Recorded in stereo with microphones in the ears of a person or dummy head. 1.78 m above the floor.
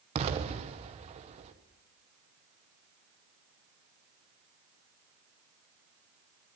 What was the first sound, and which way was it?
An explosion, 35° right (ahead or behind).